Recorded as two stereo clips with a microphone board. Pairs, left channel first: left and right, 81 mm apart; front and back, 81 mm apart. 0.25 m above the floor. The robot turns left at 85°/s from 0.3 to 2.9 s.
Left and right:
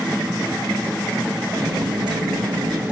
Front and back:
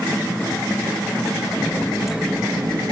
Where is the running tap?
50° right, 3.5 m; by 2.9 s 165° right, 3.5 m.